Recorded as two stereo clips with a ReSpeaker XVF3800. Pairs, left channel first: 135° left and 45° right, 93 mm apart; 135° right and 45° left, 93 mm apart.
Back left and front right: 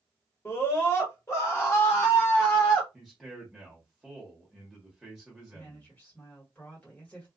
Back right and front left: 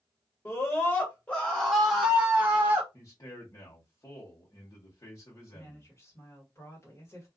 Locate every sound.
0.5 s a scream: 175° right, 1.5 m; by 2.8 s 85° left, 1.3 m
2.9 s a man speaking: 135° right, 1.2 m
5.5 s a woman speaking: 165° right, 1.5 m